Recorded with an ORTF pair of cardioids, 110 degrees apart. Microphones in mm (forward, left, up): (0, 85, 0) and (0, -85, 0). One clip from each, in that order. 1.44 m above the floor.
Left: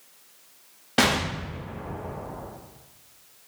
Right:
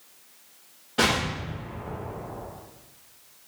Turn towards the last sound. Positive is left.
turn(degrees=65)